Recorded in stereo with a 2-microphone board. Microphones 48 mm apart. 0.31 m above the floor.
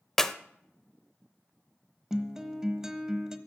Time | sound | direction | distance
0.2 | a clap | 10° left (ahead or behind) | 0.7 m
2.1 | a guitar | 10° right (ahead or behind) | 1.0 m